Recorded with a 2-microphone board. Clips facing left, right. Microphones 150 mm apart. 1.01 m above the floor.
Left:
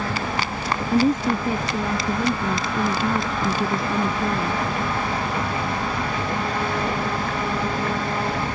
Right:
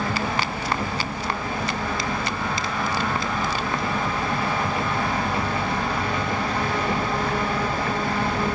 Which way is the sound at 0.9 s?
80° left.